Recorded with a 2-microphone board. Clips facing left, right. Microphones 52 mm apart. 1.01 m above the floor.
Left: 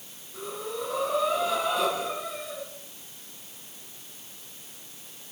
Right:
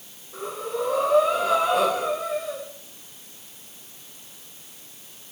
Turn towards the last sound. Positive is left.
turn(degrees=-80)